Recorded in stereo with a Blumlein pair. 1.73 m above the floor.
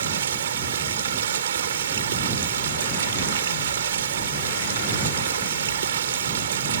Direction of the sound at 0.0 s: 65° right.